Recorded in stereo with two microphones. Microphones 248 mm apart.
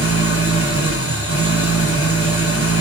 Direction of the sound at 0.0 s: 65° left (ahead or behind).